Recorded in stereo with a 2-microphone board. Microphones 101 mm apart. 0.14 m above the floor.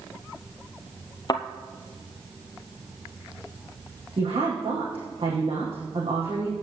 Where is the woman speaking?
70° right (ahead or behind), 5 m.